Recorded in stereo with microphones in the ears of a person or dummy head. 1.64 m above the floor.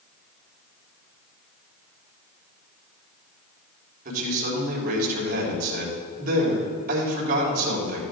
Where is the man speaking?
45° right (ahead or behind), 3.5 m.